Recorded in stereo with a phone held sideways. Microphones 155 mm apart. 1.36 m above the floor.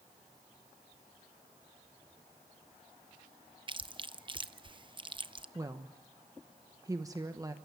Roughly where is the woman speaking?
Right.